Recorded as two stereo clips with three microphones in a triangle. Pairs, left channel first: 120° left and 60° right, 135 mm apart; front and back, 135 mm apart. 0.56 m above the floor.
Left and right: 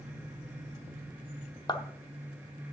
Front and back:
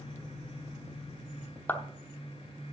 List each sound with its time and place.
1.7 s a clap: 70° left, 0.7 m